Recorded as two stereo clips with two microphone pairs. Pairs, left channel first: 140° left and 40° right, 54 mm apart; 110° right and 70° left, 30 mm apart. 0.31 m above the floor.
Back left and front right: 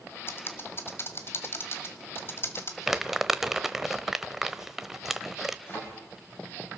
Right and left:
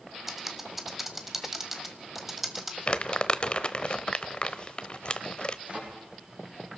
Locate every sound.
0.3 s typing on a keyboard: 150° left, 1.6 m
2.9 s crumpling: 120° right, 0.8 m
5.7 s a thud: 100° left, 8 m